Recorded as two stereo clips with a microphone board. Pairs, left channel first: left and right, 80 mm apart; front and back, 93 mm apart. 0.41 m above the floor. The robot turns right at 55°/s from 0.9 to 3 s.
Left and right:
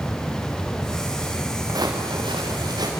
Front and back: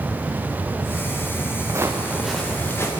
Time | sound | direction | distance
1.7 | footsteps | 125° right | 3 m